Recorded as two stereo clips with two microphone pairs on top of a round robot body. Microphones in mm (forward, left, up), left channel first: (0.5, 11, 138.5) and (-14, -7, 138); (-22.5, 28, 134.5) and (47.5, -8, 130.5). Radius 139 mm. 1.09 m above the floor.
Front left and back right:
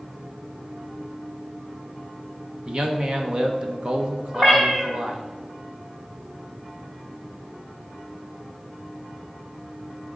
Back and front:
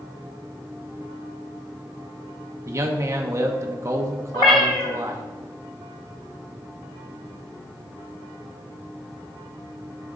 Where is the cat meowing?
165° left, 0.7 m.